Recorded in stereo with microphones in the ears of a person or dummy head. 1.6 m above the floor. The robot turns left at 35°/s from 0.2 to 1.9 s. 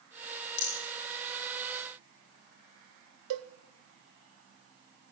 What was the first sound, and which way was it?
A rattle, 45° left (ahead or behind).